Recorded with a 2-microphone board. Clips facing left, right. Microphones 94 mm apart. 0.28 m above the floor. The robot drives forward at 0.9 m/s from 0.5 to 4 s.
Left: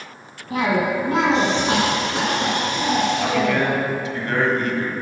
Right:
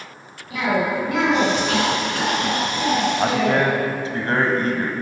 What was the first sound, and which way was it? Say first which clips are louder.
A cough: left 1 dB; 40° left (ahead or behind).